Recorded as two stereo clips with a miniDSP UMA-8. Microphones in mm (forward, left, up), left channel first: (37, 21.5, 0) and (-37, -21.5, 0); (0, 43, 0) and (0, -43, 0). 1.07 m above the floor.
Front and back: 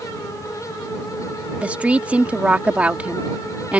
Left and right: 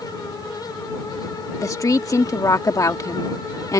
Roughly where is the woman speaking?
Behind left.